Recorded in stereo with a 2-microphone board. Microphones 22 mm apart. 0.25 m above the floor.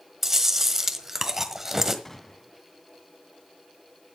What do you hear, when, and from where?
0.2 s chewing: 15° right (ahead or behind), 1.4 m
2.0 s a gunshot: 15° left (ahead or behind), 1.9 m